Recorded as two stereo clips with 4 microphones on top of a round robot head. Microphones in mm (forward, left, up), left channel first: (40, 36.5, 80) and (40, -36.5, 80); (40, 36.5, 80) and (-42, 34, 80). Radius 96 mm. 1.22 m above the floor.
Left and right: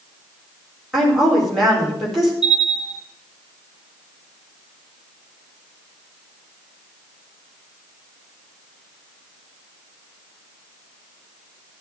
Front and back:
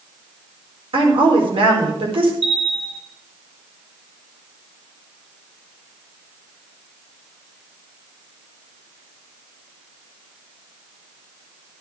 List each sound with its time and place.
0.9 s a woman speaking: straight behind, 4.5 m
2.4 s a bell: 170° right, 3 m